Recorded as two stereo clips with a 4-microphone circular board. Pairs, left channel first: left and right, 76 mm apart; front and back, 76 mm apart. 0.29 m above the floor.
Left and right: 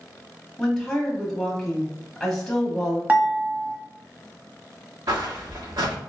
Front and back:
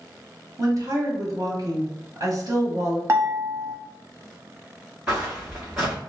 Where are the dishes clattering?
150° right, 0.9 m.